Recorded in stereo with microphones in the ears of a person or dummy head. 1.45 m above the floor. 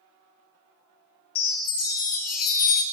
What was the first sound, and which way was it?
A chime, 45° left (ahead or behind).